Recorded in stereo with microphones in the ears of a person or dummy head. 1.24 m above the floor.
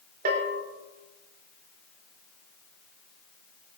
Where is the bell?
45° right (ahead or behind), 3 m.